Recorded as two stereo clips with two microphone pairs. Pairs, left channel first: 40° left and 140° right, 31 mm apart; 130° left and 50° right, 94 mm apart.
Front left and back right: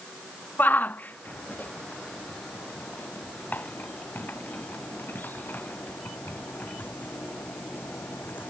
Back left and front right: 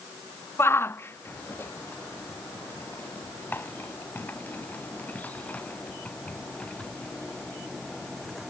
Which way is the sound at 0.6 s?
65° left.